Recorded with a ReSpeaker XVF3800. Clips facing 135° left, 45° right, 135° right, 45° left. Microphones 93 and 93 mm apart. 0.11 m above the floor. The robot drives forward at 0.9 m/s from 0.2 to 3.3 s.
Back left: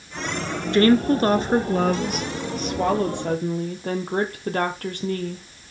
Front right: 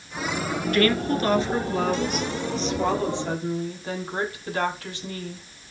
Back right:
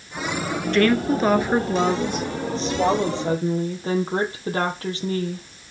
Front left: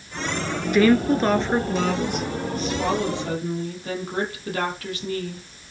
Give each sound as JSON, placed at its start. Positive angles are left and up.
{"t": 0.7, "sound": "a woman speaking", "azimuth_deg": 115, "distance_m": 1.1}